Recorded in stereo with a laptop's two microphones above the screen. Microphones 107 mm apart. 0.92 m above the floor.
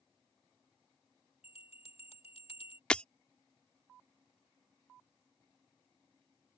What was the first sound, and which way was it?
A bell, 75° left (ahead or behind).